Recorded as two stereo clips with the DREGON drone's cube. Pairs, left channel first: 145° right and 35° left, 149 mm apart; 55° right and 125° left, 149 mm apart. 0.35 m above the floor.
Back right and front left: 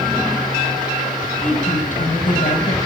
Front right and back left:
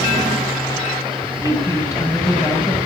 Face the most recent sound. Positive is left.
turn(degrees=-125)